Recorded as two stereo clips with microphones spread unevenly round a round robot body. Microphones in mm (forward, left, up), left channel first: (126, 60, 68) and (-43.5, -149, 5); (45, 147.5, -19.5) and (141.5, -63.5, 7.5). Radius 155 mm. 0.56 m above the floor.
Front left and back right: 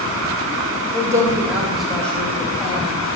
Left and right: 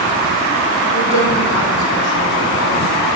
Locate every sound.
0.9 s a woman speaking: 160° left, 3 m; by 3.0 s 130° left, 3 m